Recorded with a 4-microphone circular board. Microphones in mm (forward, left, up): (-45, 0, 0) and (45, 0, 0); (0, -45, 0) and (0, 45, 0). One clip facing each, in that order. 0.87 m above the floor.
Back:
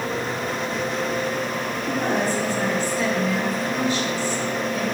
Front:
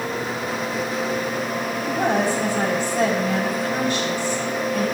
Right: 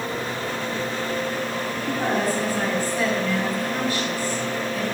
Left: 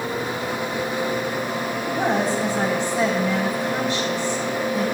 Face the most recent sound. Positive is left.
turn(degrees=25)